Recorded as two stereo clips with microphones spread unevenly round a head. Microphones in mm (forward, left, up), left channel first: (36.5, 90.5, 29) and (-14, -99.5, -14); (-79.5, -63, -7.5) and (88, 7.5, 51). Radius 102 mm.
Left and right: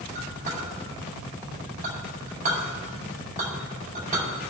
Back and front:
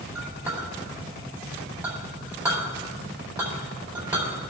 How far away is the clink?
About 3.5 m.